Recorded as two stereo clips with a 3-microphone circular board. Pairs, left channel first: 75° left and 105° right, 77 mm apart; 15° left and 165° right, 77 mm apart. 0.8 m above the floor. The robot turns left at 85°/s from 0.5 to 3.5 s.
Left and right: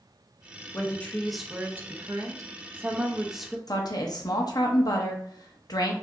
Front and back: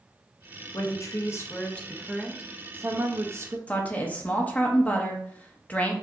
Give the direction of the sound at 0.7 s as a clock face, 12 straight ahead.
11 o'clock.